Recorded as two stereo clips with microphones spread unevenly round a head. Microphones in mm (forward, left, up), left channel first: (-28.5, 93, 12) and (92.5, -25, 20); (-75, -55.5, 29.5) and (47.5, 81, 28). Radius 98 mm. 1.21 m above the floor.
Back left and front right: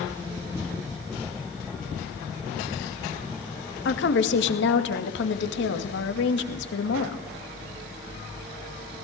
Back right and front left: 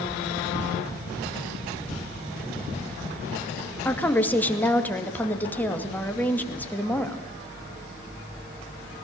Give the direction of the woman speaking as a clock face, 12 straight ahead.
7 o'clock.